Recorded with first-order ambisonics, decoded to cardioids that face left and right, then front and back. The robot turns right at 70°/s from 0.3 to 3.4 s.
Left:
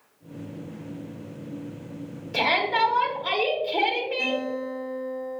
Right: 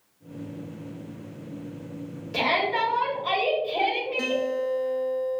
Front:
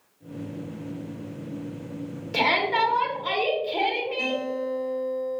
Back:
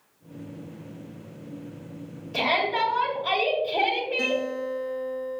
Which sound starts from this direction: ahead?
A shout, at 2.3 s.